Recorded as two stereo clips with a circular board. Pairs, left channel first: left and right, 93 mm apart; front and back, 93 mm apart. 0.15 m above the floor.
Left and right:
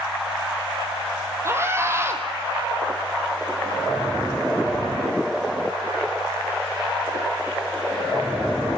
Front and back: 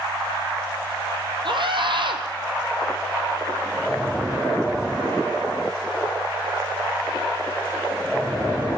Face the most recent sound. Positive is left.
turn(degrees=-150)